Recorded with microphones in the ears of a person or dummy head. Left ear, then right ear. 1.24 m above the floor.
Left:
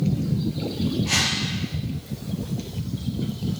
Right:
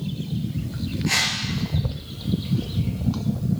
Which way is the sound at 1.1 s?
35° right (ahead or behind).